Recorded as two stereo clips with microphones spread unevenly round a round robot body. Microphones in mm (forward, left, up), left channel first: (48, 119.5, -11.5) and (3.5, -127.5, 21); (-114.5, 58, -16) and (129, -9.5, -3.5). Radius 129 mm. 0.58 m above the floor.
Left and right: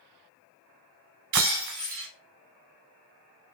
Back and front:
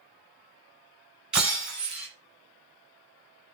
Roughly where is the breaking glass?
Right.